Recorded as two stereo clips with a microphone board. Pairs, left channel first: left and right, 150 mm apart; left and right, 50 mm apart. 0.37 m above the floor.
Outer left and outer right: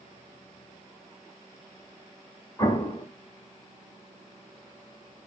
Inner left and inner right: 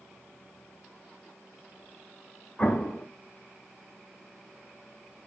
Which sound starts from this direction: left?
An explosion, at 2.6 s.